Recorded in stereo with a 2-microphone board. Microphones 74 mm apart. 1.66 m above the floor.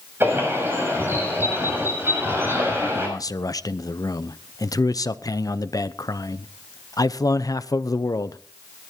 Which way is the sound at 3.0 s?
55° left (ahead or behind).